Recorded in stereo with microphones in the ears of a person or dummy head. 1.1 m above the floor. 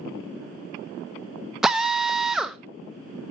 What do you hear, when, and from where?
1.6 s a drill: 5° right (ahead or behind), 0.8 m